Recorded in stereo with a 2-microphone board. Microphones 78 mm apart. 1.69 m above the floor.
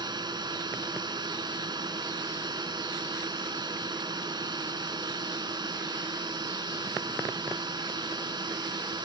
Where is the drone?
60° right (ahead or behind).